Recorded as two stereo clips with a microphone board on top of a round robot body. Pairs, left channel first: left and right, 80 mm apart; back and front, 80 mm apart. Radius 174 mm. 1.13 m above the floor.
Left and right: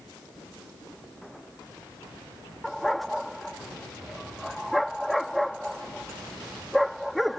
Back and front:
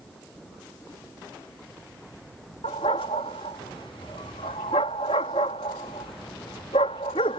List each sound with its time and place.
2.6 s a dog barking: straight behind